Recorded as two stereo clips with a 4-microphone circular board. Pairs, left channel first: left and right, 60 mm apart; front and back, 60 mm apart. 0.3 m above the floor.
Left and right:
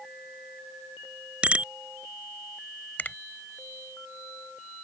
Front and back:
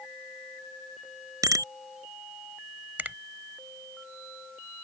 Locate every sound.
1.4 s a bicycle bell: 160° right
3.0 s a finger snap: 135° left